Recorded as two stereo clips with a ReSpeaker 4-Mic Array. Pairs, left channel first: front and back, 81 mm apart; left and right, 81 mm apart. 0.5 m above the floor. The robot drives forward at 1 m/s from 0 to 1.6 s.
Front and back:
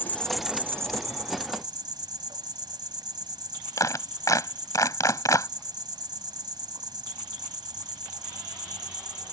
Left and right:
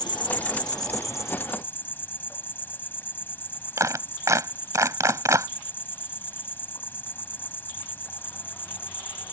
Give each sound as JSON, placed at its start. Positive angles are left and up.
{"t": 0.0, "sound": "an insect", "azimuth_deg": 60}
{"t": 3.8, "sound": "a clap", "azimuth_deg": -45}